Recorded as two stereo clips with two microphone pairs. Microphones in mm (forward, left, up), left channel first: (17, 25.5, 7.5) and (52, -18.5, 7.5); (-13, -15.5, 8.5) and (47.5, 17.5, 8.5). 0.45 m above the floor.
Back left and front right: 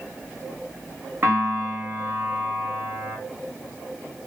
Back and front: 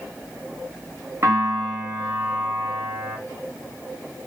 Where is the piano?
10° right, 2 m.